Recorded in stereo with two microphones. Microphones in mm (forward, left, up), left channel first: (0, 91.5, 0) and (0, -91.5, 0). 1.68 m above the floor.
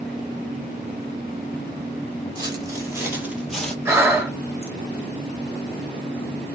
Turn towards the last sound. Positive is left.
turn(degrees=-15)  # may be behind; listen again after turning